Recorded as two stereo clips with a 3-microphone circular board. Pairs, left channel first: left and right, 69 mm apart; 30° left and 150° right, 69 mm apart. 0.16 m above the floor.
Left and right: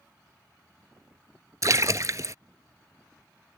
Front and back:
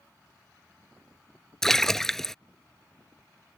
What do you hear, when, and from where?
1.6 s a splash: 55° right